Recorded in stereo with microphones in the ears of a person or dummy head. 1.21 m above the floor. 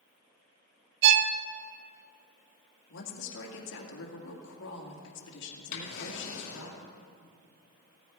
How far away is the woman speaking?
About 2.5 m.